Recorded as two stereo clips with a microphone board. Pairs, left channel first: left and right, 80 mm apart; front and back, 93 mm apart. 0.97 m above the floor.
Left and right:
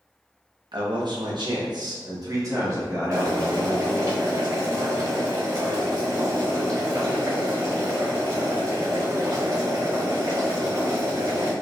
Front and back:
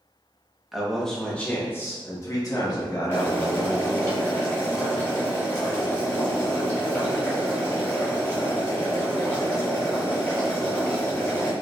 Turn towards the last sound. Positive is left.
turn(degrees=-60)